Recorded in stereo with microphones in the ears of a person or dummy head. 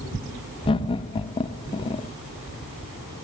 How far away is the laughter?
About 0.8 m.